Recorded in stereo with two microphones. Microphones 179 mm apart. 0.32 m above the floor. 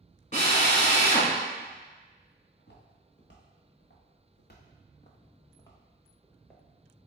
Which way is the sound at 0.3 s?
45° left (ahead or behind).